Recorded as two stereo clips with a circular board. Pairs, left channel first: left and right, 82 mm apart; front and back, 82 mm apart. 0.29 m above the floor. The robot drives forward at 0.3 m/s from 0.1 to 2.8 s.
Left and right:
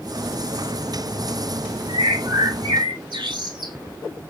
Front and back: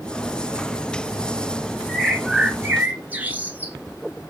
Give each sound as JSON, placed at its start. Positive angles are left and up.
{"t": 1.9, "sound": "a bird", "azimuth_deg": -90, "distance_m": 0.8}